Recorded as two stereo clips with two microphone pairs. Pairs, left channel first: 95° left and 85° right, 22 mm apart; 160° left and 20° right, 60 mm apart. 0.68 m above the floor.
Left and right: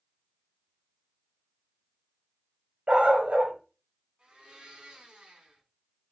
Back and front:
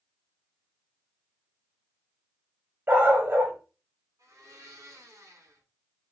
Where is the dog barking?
65° right, 1.7 m.